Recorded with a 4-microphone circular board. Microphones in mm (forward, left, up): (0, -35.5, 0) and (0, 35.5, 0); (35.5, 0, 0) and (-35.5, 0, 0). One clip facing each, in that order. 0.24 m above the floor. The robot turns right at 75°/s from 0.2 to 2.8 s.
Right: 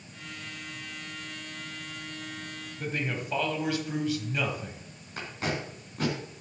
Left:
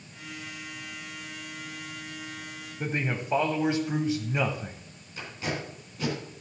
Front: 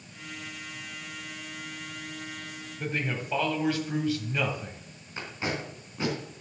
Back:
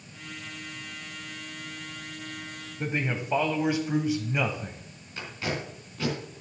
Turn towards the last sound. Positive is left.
turn(degrees=-60)